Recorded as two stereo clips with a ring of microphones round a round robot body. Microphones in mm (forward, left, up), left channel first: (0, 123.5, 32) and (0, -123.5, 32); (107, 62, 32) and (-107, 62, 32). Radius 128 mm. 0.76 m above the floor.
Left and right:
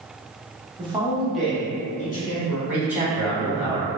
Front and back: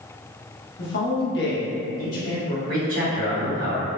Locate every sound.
0.8 s a man speaking: 25° right, 1.0 m; by 2.6 s 60° left, 1.0 m
2.7 s a man speaking: 175° right, 1.9 m